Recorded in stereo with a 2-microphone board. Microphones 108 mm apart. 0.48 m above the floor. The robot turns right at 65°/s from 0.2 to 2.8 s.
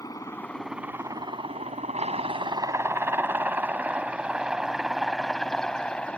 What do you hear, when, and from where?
0.0 s a helicopter: 30° left (ahead or behind); by 6.2 s 10° left (ahead or behind)